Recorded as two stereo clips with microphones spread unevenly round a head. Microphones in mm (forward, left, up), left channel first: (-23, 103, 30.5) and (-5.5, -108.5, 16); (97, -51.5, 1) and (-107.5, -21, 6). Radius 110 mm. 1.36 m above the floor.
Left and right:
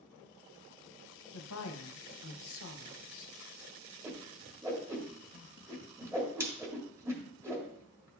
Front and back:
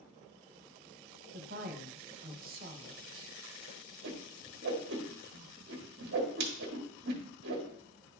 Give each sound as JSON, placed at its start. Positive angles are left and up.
{"t": 1.3, "sound": "a woman speaking", "azimuth_deg": 120, "distance_m": 1.0}
{"t": 4.0, "sound": "a whoosh", "azimuth_deg": -165, "distance_m": 1.4}